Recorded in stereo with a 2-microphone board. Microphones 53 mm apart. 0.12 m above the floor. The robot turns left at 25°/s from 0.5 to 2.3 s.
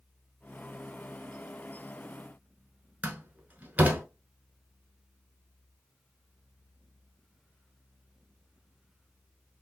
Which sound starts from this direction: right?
A door slam, at 3.0 s.